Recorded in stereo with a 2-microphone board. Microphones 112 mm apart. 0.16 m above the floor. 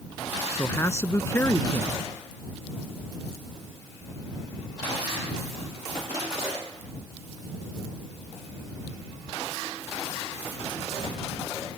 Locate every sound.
0.6 s a man speaking: 25° left (ahead or behind)